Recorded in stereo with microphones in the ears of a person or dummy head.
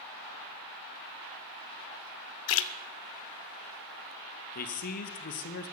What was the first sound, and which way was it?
A splash, 65° left (ahead or behind).